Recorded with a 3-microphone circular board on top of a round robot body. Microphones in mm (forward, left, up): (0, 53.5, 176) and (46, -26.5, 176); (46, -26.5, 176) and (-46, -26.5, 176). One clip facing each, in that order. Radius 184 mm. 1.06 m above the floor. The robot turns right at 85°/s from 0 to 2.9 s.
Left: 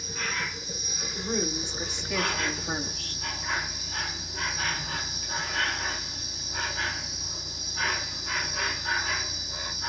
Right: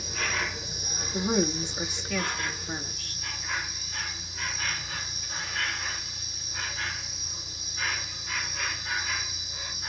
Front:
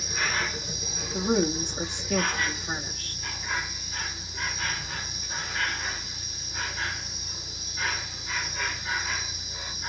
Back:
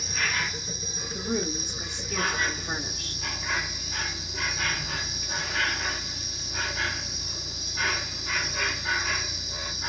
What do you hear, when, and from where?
0.0 s an insect: 90° right, 1.3 m; by 9.9 s 155° left, 1.3 m
1.1 s a woman speaking: 45° right, 1.4 m; by 3.2 s 105° left, 1.4 m